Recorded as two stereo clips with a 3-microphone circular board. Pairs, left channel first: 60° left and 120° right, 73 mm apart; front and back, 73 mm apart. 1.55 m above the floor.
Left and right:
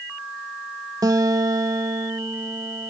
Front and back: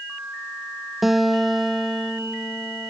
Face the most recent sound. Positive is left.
turn(degrees=-95)